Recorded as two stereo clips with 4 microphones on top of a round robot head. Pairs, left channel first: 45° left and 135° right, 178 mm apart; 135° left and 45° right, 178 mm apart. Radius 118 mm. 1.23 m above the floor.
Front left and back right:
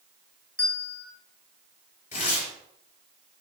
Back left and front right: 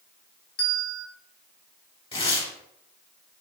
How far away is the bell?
About 1.5 m.